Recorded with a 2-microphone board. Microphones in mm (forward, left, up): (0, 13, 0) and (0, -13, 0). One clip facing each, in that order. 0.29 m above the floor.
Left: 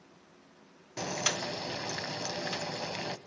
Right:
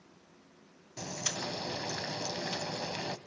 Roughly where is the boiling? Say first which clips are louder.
Left 5 dB; left.